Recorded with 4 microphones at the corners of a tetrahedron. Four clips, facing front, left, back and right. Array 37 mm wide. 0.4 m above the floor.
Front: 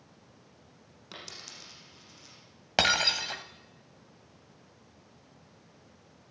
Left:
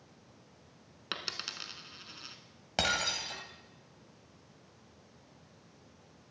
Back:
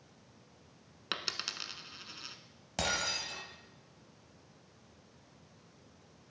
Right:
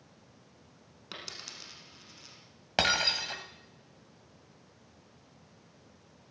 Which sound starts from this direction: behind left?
A dropped coin, at 1.1 s.